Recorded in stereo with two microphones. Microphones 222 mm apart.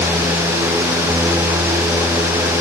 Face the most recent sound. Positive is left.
No sound to turn to.